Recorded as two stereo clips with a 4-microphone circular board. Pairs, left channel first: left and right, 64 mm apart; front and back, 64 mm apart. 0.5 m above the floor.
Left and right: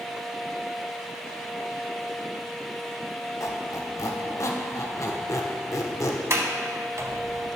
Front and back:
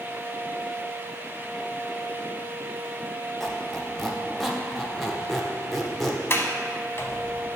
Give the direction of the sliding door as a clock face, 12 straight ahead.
2 o'clock.